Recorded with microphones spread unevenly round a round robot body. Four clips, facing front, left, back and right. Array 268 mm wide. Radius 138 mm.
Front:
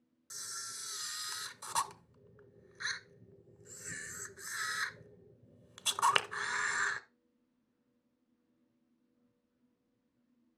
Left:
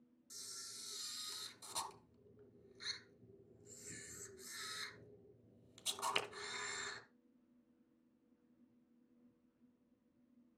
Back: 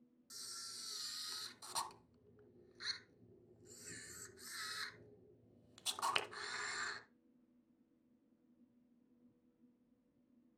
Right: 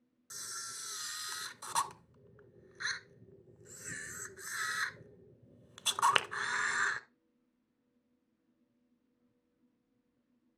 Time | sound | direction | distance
0.3 | a camera shutter | 50° right | 0.8 m